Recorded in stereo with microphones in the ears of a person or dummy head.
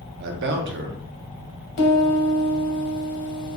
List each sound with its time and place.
0.2 s a man speaking: 60° right (ahead or behind), 0.7 m
1.8 s a piano: 60° left (ahead or behind), 1.5 m